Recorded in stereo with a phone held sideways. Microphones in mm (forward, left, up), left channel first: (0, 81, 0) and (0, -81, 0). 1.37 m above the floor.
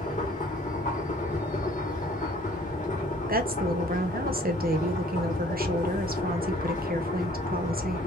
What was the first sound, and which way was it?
A machine running, 50° left (ahead or behind).